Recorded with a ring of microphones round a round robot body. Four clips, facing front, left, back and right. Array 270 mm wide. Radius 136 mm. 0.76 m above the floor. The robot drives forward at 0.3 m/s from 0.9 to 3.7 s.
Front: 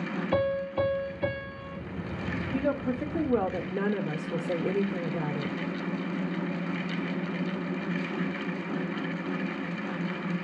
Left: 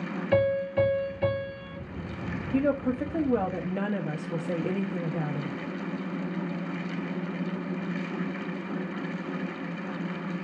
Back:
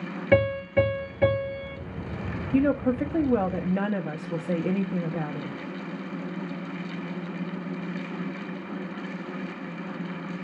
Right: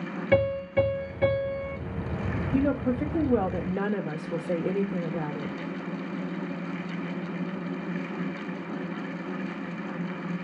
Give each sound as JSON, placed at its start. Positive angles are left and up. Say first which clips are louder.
{"t": 0.3, "sound": "a piano", "louder": "right 1 dB, back 6 dB", "azimuth_deg": -165, "distance_m": 3.5}
{"t": 2.5, "sound": "a woman speaking", "louder": "even, back 7 dB", "azimuth_deg": 160, "distance_m": 1.0}